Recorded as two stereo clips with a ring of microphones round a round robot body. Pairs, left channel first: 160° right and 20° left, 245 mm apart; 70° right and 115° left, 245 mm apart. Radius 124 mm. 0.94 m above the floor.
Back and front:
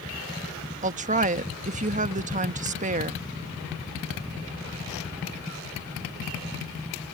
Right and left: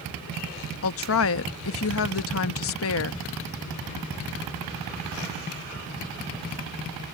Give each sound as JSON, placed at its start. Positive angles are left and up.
{"t": 0.8, "sound": "a woman speaking", "azimuth_deg": -35}